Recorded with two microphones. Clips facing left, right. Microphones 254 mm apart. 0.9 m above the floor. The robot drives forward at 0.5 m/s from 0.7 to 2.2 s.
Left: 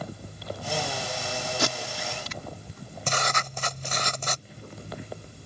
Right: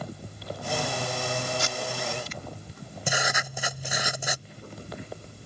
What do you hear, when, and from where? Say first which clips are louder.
1.6 s tape being pulled: left 1 dB; 70° left (ahead or behind)
3.1 s writing: even; 10° right (ahead or behind)